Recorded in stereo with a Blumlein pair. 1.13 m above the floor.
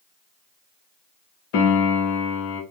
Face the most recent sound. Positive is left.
turn(degrees=45)